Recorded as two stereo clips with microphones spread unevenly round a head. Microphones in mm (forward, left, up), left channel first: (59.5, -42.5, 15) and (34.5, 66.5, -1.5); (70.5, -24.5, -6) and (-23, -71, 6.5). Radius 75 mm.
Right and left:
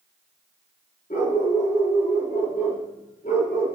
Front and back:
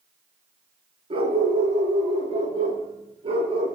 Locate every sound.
1.1 s a dog barking: 125° right, 8 m